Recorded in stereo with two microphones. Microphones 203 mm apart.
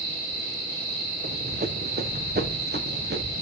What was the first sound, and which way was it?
Running footsteps, 45° right (ahead or behind).